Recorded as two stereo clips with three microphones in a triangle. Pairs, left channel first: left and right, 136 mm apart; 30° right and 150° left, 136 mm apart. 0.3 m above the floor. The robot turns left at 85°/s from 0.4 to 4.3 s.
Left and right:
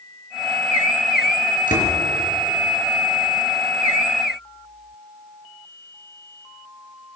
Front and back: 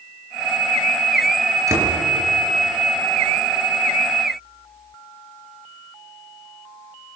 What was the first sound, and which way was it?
A door slam, 85° left.